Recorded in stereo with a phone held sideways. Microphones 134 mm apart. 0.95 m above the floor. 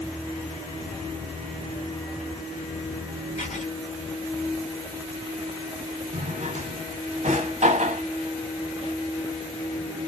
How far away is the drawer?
About 0.9 m.